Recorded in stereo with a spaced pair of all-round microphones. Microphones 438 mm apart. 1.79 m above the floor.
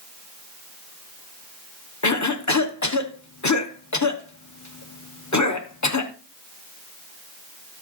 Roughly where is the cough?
Left.